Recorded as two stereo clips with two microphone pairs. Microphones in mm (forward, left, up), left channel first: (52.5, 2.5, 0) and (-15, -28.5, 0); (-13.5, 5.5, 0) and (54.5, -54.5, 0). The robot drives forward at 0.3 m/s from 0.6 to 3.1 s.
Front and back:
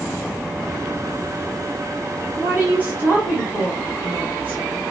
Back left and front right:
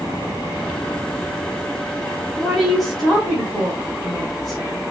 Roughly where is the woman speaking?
Behind right.